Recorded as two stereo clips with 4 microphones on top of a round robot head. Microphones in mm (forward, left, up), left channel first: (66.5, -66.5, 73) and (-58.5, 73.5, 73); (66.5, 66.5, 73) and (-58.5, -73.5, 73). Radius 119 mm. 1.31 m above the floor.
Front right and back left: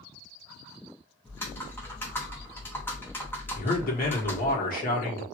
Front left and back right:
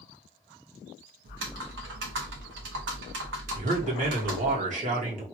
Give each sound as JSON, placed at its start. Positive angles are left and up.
{"t": 1.2, "sound": "typing on a keyboard", "azimuth_deg": -125, "distance_m": 1.0}
{"t": 3.5, "sound": "a man speaking", "azimuth_deg": -85, "distance_m": 1.5}